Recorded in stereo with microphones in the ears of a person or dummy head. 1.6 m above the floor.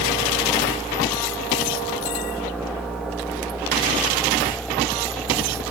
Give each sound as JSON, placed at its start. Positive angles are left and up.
{"t": 0.0, "sound": "a fan", "side_deg": -5}